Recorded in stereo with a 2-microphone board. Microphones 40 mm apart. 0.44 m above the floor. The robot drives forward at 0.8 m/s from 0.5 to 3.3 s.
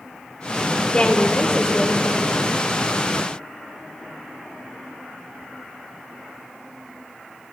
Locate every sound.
0.9 s a woman speaking: 25° left (ahead or behind), 1.2 m; by 2.4 s 20° left (ahead or behind), 1.7 m